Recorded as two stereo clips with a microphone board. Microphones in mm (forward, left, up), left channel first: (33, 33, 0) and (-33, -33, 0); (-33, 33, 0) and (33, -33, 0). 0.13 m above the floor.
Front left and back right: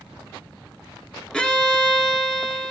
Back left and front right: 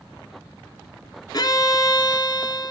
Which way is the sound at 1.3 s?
120° left.